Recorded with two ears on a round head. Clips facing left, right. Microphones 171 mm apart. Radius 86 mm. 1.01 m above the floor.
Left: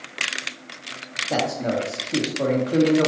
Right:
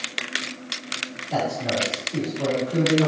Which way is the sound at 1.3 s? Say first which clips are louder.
Left 2 dB; 80° left.